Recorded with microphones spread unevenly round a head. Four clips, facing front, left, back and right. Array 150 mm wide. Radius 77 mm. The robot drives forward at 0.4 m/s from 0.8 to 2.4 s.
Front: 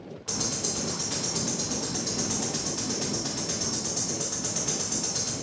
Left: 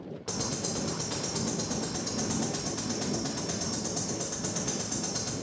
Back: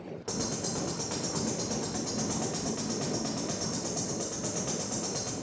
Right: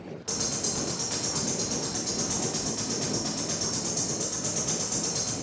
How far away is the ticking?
About 0.8 m.